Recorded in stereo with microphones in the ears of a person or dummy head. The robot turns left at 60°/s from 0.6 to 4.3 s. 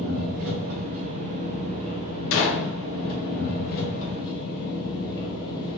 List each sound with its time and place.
0.0 s an engine running: 110° right, 1.6 m; by 5.8 s 25° left, 1.6 m
2.3 s a gunshot: 70° left (ahead or behind), 1.0 m; by 2.7 s 55° left (ahead or behind), 1.0 m